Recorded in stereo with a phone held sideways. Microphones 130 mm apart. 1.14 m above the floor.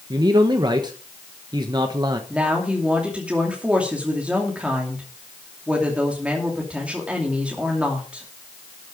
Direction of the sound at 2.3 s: 10° right (ahead or behind).